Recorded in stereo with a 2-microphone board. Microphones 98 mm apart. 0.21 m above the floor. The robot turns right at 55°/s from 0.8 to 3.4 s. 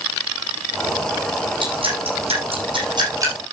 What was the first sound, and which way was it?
Dripping, 55° right (ahead or behind).